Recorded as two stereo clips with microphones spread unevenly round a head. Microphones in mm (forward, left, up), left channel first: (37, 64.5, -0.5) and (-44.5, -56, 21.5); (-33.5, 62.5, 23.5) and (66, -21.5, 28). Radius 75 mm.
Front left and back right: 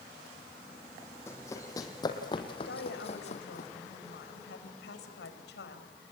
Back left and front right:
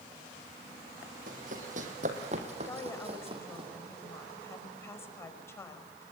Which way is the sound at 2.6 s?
70° left.